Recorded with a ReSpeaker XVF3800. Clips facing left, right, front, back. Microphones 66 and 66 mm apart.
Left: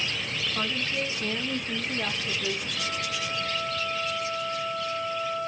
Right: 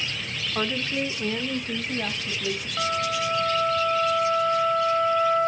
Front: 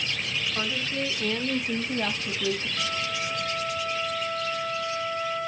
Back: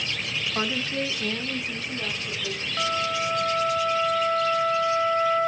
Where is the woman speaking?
140° right, 1.3 m; by 2.7 s 5° left, 2 m.